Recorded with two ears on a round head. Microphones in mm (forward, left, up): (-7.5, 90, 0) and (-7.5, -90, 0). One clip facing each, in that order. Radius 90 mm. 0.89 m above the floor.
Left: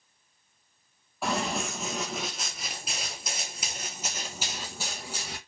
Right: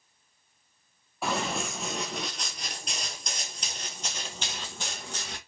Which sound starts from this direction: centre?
Running footsteps, at 1.2 s.